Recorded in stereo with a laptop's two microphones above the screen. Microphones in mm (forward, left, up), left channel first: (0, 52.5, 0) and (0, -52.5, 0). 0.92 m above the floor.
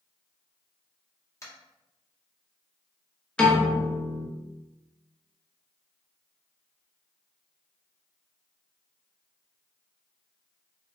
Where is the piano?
10° left (ahead or behind), 0.7 m.